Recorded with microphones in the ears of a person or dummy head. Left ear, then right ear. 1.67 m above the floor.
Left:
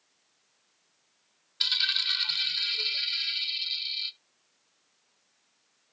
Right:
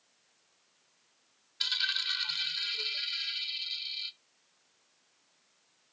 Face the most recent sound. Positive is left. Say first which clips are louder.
# left 5 dB
turn(degrees=10)  # may be behind; listen again after turning